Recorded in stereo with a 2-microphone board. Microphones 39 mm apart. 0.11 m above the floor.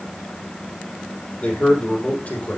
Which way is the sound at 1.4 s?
35° left (ahead or behind).